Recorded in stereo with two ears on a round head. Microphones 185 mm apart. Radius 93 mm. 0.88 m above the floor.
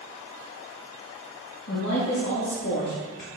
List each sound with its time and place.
1.7 s a woman speaking: 55° left (ahead or behind), 1.7 m